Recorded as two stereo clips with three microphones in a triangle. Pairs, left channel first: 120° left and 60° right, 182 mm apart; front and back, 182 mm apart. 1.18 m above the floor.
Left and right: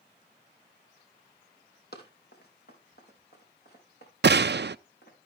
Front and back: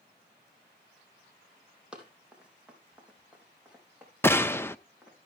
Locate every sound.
1.9 s running footsteps: 95° left, 3.5 m
4.2 s a gunshot: 75° right, 0.5 m